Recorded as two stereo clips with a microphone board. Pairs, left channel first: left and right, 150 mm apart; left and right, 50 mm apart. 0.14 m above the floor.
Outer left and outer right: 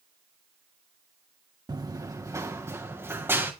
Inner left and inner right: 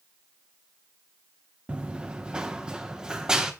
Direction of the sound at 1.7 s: 25° right (ahead or behind).